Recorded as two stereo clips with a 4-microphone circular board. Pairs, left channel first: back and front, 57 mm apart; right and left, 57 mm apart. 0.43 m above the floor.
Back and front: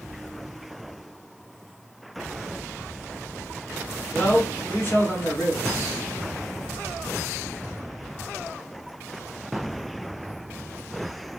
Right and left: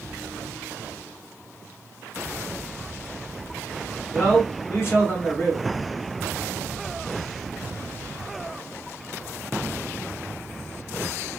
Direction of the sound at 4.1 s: 135° right.